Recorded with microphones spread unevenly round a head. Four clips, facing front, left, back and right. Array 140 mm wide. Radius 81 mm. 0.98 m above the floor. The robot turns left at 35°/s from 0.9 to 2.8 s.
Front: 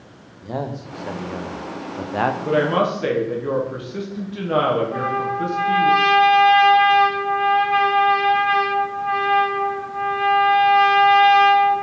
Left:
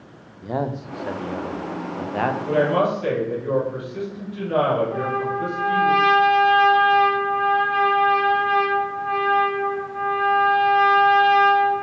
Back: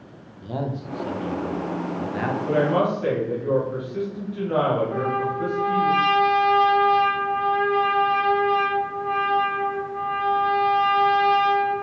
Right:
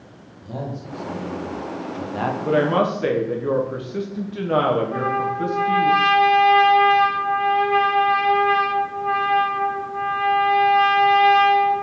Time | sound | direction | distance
0.4 | a man speaking | 70° left | 0.5 m
2.5 | a woman speaking | 50° right | 0.8 m
4.9 | a trumpet | 150° right | 1.2 m